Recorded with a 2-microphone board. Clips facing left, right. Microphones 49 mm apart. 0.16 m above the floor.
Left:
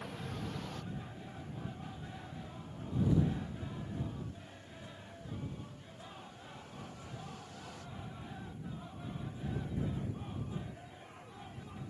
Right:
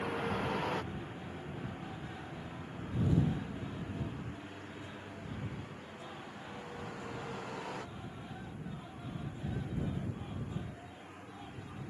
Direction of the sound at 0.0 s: 60° right (ahead or behind).